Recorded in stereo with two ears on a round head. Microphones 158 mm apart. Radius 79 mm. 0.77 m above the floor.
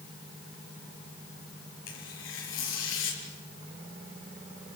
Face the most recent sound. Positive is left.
turn(degrees=85)